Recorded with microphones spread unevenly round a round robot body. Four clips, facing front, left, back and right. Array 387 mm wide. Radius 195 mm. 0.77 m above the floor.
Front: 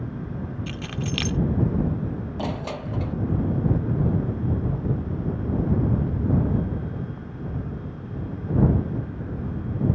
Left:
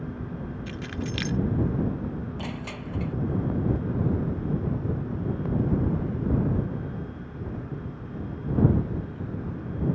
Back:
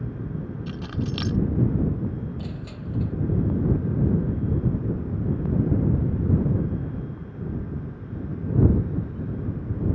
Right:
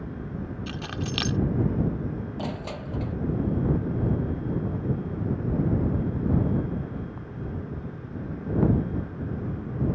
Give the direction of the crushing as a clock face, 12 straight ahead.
12 o'clock.